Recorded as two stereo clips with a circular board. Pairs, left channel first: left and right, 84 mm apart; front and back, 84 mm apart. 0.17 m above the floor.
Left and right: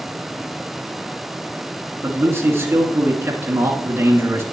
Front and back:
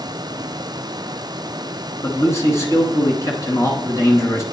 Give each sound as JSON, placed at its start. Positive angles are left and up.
{"t": 2.0, "sound": "a man speaking", "azimuth_deg": -40, "distance_m": 1.9}